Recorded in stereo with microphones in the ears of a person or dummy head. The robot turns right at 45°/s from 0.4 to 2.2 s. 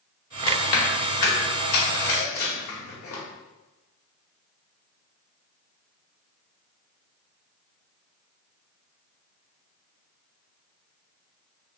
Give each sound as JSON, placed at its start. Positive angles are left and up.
{"t": 0.5, "sound": "chewing", "side_deg": 35, "distance_m": 0.8}